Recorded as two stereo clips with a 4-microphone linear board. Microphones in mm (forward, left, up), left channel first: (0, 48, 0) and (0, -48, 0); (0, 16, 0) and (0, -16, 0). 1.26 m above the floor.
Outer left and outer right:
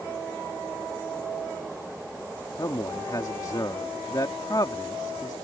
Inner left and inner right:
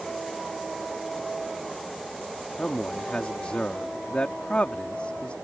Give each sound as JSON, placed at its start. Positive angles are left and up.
{"t": 2.6, "sound": "a man speaking", "side_deg": 45}